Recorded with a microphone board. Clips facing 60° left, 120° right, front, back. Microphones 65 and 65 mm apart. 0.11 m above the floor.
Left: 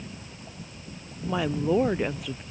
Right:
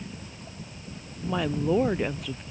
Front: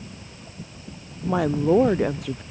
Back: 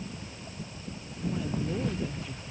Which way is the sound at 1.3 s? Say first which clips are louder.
Even, front 12 dB; 25° right.